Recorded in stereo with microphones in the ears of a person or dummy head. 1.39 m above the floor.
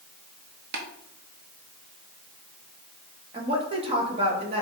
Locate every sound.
0.7 s tapping: 55° right (ahead or behind), 1.0 m
3.3 s a woman speaking: 30° right (ahead or behind), 1.7 m